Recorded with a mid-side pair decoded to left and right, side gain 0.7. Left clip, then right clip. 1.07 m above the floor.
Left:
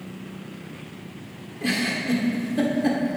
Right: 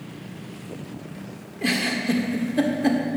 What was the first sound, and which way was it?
A giggle, 20° right.